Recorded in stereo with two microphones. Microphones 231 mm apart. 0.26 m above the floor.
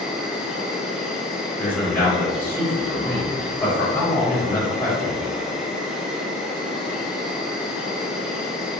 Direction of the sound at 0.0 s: 5° right (ahead or behind).